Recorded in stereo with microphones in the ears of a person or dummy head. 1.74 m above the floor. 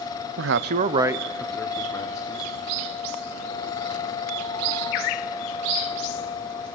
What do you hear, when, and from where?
0.4 s a man speaking: 80° right, 0.7 m; by 2.5 s 20° left (ahead or behind), 2 m